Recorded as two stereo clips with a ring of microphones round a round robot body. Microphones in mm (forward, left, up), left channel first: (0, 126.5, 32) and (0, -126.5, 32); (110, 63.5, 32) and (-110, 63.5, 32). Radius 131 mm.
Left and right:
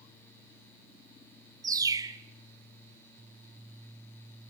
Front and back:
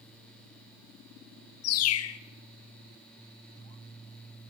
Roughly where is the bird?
Ahead.